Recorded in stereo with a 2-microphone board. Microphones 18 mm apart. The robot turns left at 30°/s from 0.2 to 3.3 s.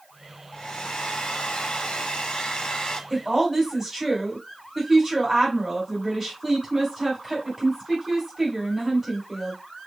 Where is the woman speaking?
15° right (ahead or behind), 2 m; by 9.6 s 20° right (ahead or behind), 2 m.